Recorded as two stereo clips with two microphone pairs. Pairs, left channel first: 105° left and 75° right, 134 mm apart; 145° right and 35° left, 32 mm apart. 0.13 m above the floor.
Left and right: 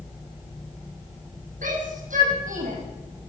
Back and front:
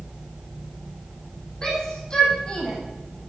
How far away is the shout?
About 5 m.